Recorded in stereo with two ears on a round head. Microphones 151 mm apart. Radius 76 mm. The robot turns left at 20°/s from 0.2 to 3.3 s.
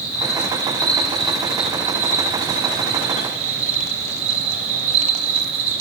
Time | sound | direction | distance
0.0 | an insect | 25° left | 6 m